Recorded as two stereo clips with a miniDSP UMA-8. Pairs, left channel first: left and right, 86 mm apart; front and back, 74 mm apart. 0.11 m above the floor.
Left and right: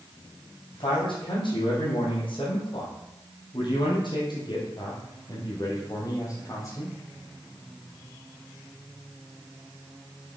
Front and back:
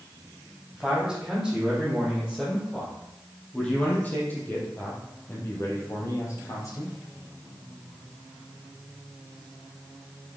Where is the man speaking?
95° left, 4 m; by 7.0 s 40° left, 3.5 m.